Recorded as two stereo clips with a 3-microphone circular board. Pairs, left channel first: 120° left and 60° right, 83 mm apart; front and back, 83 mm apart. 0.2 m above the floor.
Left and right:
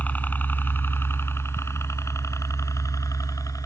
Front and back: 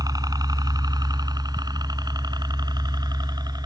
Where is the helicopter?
175° right; by 3.7 s 155° left.